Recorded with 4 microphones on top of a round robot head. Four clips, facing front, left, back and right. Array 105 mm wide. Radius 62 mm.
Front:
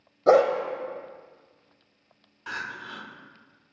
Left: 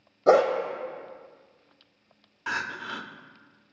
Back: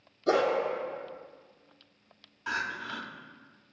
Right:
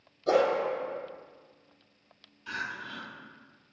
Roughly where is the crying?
Left.